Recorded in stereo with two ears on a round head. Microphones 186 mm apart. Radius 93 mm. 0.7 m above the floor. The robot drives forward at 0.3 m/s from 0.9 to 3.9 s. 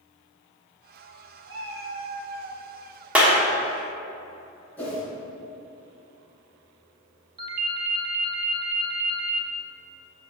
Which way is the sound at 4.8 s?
10° left (ahead or behind).